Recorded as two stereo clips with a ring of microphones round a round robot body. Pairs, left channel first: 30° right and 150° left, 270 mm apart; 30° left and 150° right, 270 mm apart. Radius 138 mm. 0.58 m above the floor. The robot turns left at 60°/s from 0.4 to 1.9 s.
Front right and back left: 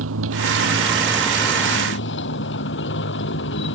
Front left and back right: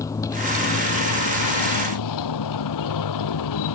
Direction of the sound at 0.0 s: 110° left.